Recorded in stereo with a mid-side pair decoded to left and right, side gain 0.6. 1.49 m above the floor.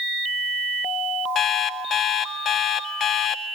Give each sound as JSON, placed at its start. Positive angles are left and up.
{"t": 1.4, "sound": "an alarm clock", "azimuth_deg": 50, "distance_m": 1.7}